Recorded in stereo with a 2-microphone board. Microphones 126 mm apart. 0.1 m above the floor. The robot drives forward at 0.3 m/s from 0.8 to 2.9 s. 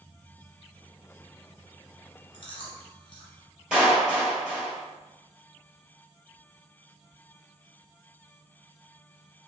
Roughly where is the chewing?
Left.